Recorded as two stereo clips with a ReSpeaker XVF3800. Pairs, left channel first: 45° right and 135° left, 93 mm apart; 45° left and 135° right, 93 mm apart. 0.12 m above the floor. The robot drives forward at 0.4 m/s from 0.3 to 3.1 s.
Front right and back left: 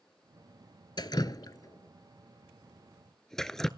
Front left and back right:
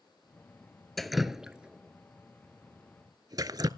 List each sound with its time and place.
1.0 s dripping: 40° right, 0.8 m; by 3.7 s 125° right, 0.7 m